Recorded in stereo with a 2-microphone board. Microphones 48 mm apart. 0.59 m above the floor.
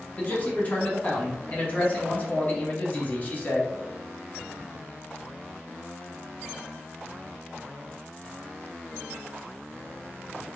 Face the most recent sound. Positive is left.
turn(degrees=35)  # may be behind; listen again after turning